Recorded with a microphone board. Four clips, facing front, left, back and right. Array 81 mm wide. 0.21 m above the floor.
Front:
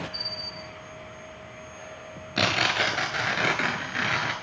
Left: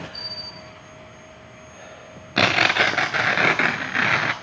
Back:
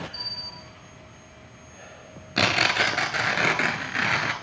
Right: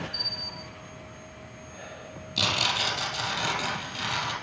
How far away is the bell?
About 6 m.